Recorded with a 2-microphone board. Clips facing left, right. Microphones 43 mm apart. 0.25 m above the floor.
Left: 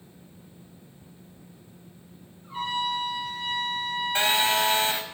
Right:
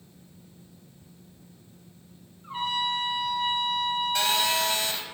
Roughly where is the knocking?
No knocking in this recording.